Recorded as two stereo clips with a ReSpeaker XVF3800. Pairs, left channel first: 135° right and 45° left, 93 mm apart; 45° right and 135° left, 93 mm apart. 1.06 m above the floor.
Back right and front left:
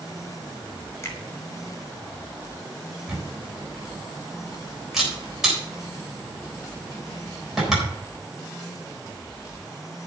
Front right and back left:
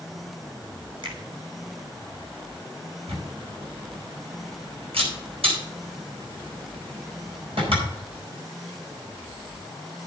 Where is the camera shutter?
130° left, 8.5 m.